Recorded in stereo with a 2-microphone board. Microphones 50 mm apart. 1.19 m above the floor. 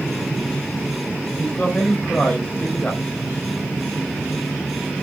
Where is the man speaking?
25° left (ahead or behind), 5 m.